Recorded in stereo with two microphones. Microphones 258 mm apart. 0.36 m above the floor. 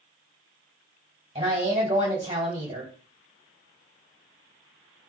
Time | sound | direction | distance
1.4 | a woman speaking | 25° right (ahead or behind) | 1.8 m